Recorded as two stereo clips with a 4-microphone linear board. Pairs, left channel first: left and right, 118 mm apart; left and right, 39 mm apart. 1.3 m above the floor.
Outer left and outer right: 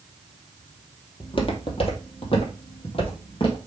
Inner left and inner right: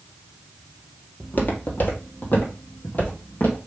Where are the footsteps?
50° left (ahead or behind), 1.8 m.